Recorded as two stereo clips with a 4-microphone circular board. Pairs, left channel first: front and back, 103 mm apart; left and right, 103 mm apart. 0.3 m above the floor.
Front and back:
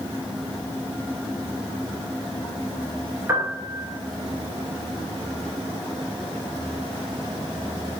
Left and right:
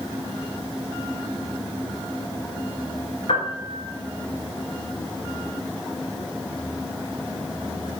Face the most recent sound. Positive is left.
turn(degrees=115)